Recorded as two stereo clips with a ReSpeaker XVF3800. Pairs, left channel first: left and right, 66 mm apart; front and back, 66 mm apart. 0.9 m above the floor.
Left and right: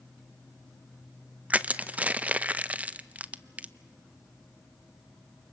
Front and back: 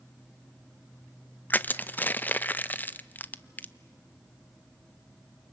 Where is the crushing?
40° right, 0.6 m.